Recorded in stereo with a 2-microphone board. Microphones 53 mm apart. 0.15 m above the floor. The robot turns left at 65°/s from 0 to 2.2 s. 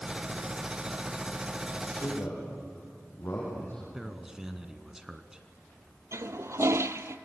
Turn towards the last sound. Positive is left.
turn(degrees=-70)  # may be behind; listen again after turning